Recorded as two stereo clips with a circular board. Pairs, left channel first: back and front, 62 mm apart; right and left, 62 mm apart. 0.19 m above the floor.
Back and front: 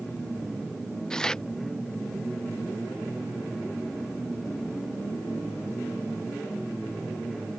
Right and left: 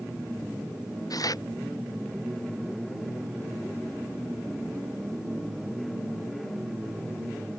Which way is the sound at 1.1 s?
100° right.